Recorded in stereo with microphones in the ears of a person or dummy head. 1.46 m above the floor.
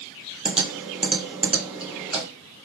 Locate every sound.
0.5 s typing on a keyboard: 5° right (ahead or behind), 0.7 m